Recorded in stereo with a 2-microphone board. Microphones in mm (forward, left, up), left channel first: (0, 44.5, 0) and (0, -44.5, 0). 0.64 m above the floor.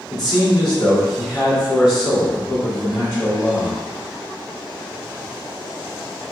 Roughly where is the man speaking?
Left.